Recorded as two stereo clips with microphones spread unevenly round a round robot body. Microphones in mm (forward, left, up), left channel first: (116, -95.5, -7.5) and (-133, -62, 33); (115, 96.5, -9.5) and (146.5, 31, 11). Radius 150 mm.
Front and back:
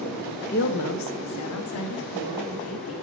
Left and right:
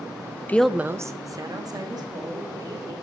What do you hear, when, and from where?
0.5 s a woman speaking: 55° left, 0.5 m; by 2.9 s 35° right, 3 m